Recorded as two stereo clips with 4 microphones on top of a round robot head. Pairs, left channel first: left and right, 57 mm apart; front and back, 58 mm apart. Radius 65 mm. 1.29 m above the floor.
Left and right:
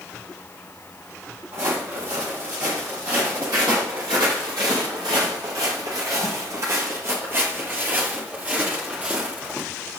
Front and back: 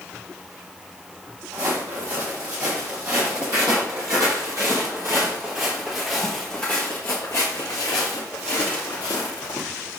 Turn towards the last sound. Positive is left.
turn(degrees=-15)